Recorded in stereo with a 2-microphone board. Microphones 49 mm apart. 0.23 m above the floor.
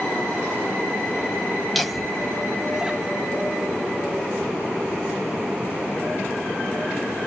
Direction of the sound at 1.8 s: Centre (ahead or behind).